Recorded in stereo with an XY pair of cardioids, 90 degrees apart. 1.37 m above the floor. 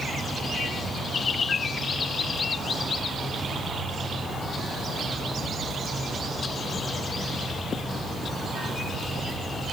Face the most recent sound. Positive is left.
No sound to turn to.